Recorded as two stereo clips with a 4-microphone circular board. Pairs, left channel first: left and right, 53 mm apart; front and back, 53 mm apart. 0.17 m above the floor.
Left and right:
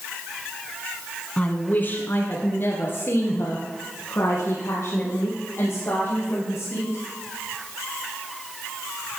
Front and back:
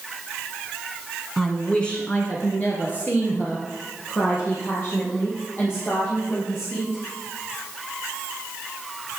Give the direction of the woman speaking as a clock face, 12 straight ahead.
9 o'clock.